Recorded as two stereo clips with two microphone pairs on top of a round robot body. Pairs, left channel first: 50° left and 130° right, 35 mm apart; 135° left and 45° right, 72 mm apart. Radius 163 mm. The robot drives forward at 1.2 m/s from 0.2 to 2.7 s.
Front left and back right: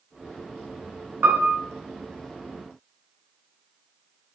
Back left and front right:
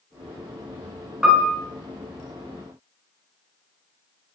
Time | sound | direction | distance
1.2 | a piano | 130° right | 1.1 m